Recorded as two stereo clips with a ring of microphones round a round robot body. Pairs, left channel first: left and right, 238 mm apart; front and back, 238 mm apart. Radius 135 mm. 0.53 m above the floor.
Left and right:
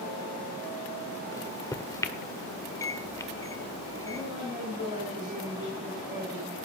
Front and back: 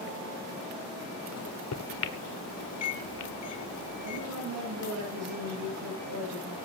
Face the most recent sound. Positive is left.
turn(degrees=-165)